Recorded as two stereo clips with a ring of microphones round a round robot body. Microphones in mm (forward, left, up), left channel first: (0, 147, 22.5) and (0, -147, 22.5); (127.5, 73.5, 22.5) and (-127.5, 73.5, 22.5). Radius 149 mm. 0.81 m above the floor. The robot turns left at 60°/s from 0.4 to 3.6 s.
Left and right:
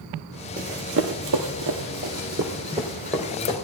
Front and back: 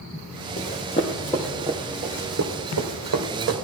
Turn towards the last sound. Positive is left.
turn(degrees=155)